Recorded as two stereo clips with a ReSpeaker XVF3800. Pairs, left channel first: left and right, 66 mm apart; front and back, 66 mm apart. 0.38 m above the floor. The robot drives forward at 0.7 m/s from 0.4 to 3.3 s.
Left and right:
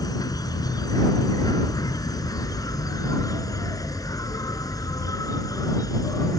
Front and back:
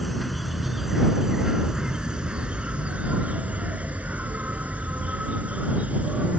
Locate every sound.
0.0 s an insect: 90° left; by 6.4 s 115° left